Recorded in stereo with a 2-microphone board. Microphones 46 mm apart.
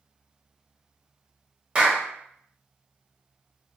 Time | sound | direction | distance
1.8 | a clap | 25° right (ahead or behind) | 1.0 m